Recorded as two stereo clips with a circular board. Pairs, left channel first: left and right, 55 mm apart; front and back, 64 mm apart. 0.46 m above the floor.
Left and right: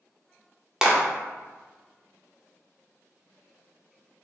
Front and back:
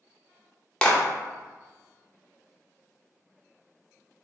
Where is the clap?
35° right, 0.7 m.